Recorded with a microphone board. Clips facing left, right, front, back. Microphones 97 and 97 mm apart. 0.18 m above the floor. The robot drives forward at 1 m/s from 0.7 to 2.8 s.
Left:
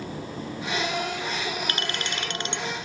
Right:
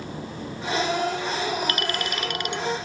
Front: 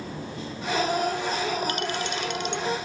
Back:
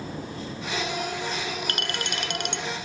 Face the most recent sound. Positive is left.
turn(degrees=155)